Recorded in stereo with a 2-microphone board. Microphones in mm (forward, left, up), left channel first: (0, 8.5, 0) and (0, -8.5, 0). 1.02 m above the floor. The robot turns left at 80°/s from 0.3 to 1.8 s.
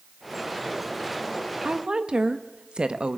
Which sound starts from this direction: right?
A woman speaking, at 1.6 s.